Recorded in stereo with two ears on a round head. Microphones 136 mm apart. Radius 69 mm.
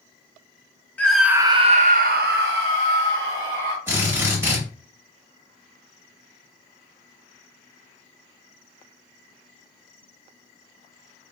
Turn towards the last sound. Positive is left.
turn(degrees=-15)  # may be behind; listen again after turning